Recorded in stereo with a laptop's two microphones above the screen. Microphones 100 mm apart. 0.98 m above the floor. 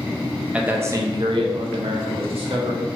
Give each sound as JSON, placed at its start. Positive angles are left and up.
{"t": 0.5, "sound": "a man speaking", "side_deg": -10, "distance_m": 0.6}